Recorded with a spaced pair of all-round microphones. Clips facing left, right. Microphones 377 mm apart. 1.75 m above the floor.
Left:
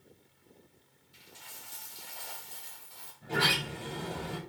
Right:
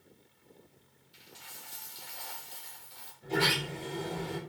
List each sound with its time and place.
1.1 s a dropped coin: 65° left (ahead or behind), 5.5 m
3.2 s a sliding door: 80° left, 9 m